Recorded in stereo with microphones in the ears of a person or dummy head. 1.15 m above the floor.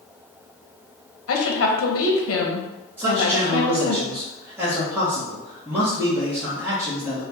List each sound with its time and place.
1.3 s a woman speaking: 75° left (ahead or behind), 1.0 m
3.0 s a man speaking: 15° right (ahead or behind), 1.0 m